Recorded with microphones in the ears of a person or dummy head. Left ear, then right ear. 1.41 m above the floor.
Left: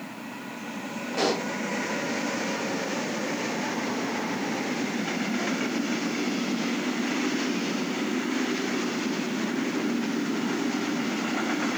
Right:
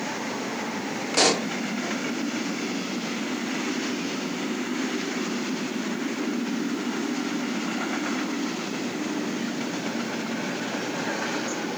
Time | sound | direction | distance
1.1 | a pop | 55° right (ahead or behind) | 0.5 m